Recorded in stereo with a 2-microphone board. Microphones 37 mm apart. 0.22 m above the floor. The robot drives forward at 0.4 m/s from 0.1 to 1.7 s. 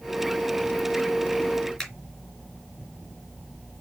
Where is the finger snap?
5° left (ahead or behind), 2.5 m.